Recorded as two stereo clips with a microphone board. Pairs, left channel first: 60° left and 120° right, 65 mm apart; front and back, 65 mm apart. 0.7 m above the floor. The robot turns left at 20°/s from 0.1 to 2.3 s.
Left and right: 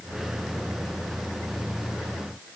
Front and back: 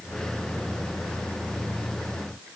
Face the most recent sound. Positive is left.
No sound to turn to.